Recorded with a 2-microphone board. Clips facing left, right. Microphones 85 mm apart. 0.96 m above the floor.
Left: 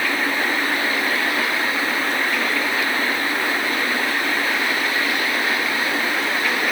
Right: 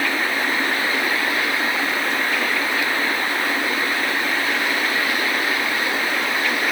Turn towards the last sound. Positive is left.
No sound to turn to.